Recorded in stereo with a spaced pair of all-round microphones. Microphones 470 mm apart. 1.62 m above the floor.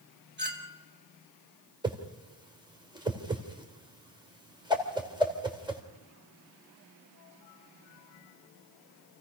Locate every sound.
0.4 s a clink: 20° right (ahead or behind), 2.5 m
1.8 s a whoosh: 10° right (ahead or behind), 2.5 m